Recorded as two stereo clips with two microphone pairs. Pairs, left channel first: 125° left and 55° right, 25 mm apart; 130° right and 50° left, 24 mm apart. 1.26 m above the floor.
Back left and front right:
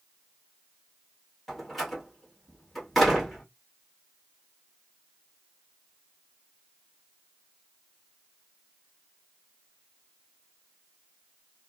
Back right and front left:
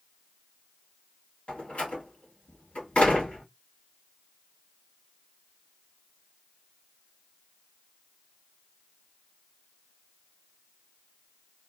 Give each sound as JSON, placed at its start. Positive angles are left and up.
{"t": 1.5, "sound": "a door slam", "azimuth_deg": -155, "distance_m": 1.7}